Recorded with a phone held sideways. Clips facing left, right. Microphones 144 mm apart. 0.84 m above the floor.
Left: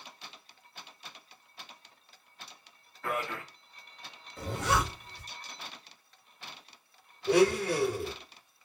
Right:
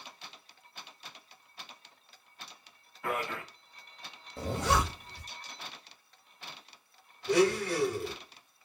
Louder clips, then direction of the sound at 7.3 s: Left 2 dB; 60° left (ahead or behind).